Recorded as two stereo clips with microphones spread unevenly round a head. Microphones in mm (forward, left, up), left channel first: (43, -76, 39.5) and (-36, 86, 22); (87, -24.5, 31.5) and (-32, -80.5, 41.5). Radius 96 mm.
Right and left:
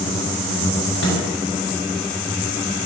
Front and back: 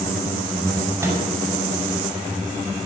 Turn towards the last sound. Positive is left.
turn(degrees=-85)